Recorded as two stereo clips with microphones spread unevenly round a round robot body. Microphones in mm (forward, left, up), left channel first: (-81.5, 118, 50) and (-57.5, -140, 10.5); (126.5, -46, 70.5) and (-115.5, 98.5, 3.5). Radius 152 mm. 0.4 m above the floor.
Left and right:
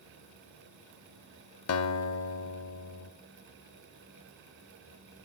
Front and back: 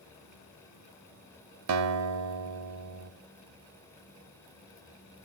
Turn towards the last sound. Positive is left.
turn(degrees=130)